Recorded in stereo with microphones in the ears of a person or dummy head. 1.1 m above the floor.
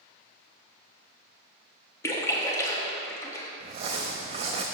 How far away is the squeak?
I don't hear a squeak.